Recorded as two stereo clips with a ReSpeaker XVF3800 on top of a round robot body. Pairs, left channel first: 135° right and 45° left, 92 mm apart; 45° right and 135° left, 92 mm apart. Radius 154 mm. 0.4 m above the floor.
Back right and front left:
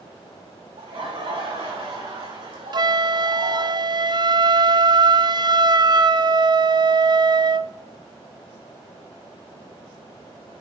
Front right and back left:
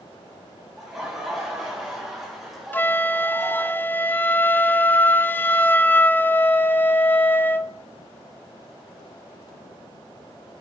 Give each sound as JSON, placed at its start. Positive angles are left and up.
{"t": 0.8, "sound": "laughter", "azimuth_deg": 50, "distance_m": 6.5}
{"t": 2.7, "sound": "a flute", "azimuth_deg": 20, "distance_m": 0.8}